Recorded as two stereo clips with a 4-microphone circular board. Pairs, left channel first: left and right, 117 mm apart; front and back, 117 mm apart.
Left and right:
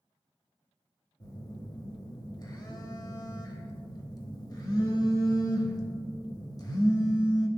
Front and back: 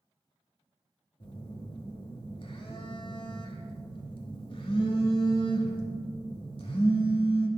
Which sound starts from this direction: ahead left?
A phone buzzing, at 1.2 s.